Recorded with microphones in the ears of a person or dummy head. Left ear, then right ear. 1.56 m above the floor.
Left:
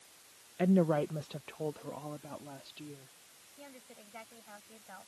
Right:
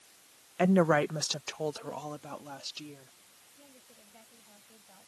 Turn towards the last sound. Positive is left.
turn(degrees=60)  # may be behind; listen again after turning